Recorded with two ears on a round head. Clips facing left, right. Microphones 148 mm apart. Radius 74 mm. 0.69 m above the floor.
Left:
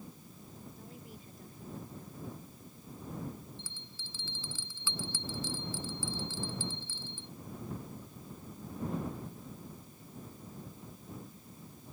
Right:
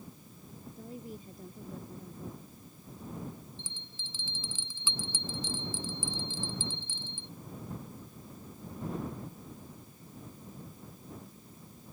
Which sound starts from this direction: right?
A woman speaking, at 0.8 s.